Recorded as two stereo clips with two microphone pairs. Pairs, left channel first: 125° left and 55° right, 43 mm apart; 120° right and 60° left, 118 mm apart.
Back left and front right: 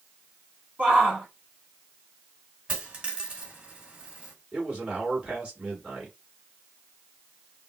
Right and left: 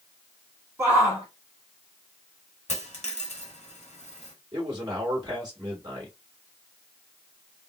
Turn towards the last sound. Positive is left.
turn(degrees=10)